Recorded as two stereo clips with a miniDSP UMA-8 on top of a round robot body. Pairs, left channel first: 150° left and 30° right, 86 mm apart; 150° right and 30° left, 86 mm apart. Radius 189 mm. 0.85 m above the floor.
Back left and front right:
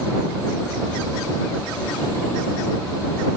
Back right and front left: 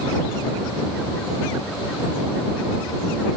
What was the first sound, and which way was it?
Only background noise.